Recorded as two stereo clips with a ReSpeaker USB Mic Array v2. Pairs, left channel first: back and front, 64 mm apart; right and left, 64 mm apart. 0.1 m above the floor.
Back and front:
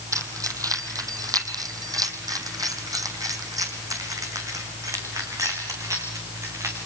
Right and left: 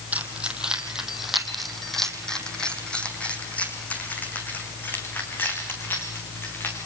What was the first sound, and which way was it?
Keys jangling, 25° left.